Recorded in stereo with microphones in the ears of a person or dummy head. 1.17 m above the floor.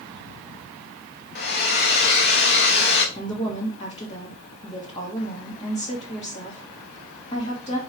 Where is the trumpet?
I don't hear a trumpet.